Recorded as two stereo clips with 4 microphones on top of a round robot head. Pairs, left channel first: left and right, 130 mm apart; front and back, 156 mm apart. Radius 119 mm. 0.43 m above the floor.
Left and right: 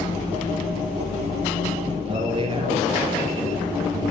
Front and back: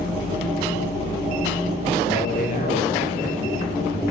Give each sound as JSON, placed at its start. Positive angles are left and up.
{"t": 2.0, "sound": "a man speaking", "azimuth_deg": -45, "distance_m": 8.5}